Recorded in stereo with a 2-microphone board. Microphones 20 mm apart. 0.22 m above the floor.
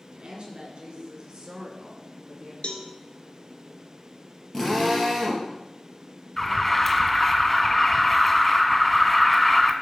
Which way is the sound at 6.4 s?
15° left (ahead or behind).